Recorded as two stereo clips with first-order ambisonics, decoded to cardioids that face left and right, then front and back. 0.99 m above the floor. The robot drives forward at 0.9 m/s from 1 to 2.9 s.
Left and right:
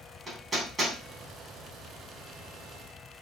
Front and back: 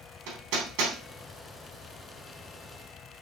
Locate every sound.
0.3 s hammering: 165° right, 3.5 m